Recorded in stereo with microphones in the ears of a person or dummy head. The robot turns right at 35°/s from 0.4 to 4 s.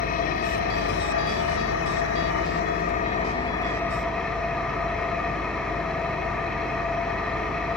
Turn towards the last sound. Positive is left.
turn(degrees=180)